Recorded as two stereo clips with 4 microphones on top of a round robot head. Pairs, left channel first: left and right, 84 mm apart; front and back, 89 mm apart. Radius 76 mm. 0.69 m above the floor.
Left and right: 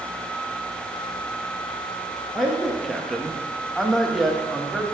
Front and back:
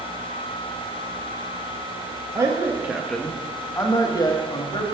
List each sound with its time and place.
2.4 s a man speaking: straight behind, 0.8 m; by 4.8 s straight ahead, 1.3 m